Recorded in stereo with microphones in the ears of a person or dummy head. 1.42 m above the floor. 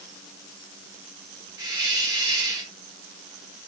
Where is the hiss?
20° right (ahead or behind), 0.7 m.